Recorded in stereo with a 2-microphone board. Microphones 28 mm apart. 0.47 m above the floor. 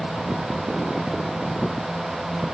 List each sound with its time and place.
Only background noise.